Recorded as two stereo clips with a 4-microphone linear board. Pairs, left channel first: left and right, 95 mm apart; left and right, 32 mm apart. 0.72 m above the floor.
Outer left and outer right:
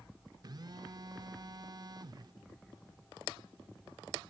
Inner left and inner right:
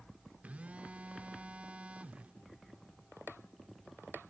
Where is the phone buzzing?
50° right (ahead or behind), 0.5 m.